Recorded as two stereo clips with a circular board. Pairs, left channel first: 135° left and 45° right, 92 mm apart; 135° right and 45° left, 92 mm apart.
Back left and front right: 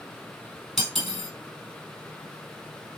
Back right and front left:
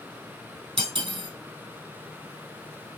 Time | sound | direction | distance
0.8 | cutlery clinking | 45° left | 2 m